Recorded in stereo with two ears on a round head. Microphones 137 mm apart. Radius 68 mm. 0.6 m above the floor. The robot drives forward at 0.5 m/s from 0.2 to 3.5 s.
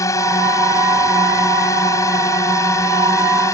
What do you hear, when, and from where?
0.0 s a drone: 20° left (ahead or behind)